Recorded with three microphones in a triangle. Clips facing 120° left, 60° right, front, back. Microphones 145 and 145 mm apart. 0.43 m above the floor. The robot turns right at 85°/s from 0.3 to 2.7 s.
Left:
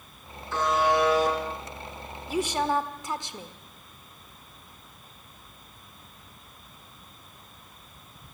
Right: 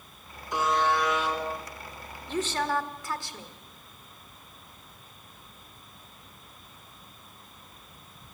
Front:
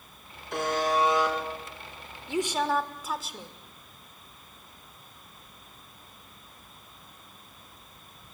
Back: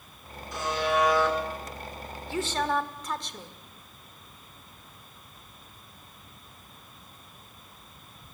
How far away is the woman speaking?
About 1.3 m.